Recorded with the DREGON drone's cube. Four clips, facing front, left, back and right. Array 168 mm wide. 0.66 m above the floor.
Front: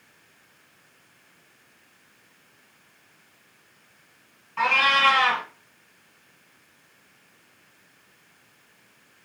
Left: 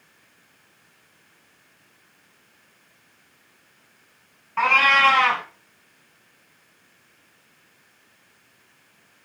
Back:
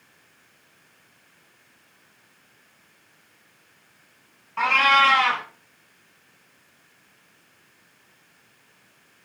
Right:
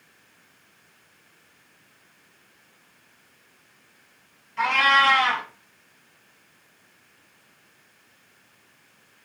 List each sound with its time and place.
4.6 s a cat meowing: 100° left, 1.3 m